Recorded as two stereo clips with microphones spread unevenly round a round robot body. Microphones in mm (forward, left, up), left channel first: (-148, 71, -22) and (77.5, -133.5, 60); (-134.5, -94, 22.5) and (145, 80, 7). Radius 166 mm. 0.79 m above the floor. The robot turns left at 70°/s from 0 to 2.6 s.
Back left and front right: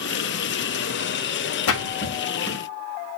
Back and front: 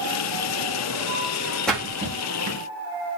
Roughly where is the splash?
Behind left.